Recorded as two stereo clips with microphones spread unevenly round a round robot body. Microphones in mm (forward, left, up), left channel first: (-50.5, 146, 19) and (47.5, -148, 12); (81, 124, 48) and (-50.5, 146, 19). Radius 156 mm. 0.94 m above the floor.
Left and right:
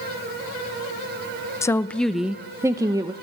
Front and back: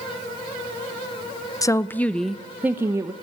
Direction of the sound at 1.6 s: 45° left.